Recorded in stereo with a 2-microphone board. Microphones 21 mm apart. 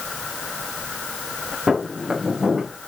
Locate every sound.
1.7 s footsteps: 35° right (ahead or behind), 6 m; by 2.7 s 30° right (ahead or behind), 7 m